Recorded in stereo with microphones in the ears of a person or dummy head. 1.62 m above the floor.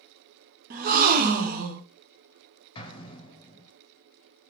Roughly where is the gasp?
Right.